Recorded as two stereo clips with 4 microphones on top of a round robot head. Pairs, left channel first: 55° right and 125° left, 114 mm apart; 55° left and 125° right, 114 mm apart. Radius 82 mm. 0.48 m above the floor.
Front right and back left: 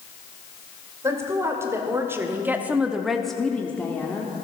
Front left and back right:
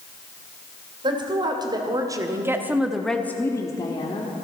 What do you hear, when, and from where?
1.0 s a woman speaking: 170° right, 2 m; by 4.3 s 15° left, 1.4 m